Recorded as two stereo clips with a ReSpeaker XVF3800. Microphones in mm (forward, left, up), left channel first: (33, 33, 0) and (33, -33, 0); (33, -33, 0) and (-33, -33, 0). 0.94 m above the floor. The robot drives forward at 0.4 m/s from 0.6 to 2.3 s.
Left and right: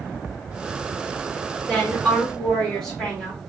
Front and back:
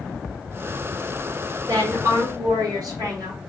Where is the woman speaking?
170° left, 1.6 m.